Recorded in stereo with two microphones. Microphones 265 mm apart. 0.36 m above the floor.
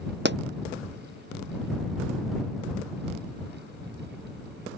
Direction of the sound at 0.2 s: 40° right (ahead or behind).